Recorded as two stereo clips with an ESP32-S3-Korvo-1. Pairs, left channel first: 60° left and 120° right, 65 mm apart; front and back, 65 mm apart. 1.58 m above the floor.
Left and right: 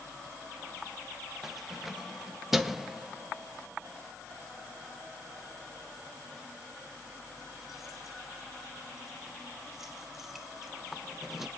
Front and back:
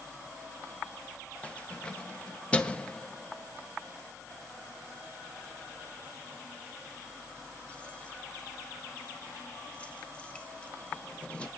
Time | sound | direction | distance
1.4 | keys jangling | 40° right | 0.7 m